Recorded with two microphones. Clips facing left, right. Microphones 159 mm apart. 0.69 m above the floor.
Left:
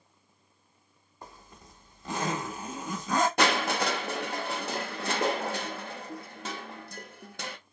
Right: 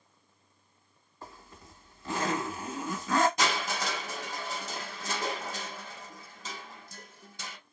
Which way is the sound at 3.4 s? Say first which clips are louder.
Left 5 dB; 65° left (ahead or behind).